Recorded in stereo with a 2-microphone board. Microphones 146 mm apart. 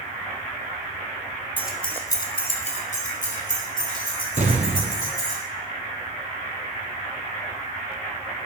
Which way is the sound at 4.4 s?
55° right (ahead or behind).